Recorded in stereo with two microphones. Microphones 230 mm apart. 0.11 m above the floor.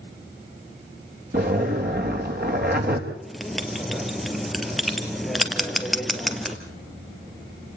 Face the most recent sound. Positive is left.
turn(degrees=0)  # may be behind; listen again after turning